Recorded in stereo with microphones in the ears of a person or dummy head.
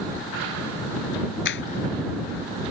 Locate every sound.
1.4 s a clap: 55° left (ahead or behind)